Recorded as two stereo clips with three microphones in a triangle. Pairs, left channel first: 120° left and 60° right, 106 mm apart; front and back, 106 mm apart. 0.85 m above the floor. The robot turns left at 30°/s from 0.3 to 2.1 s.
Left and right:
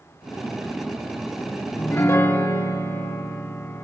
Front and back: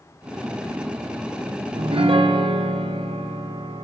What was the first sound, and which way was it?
A piano, 170° right.